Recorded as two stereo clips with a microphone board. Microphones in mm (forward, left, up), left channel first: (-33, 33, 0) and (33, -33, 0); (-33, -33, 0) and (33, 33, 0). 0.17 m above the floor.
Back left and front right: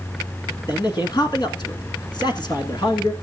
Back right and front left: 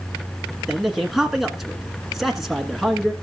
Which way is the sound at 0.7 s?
130° left.